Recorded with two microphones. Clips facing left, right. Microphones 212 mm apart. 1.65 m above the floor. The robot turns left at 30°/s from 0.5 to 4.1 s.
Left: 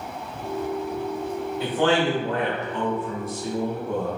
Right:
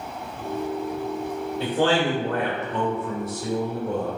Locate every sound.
1.6 s a man speaking: 35° right, 1.0 m; by 4.2 s 110° right, 1.0 m